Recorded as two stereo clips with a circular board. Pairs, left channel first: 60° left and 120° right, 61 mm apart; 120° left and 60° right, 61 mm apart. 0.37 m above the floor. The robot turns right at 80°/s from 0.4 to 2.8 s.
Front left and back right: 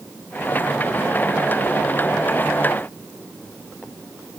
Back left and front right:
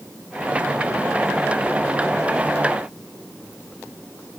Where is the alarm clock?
I don't hear an alarm clock.